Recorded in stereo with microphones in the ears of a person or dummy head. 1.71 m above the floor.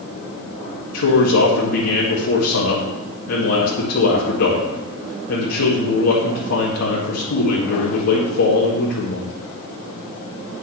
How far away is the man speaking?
About 2.5 m.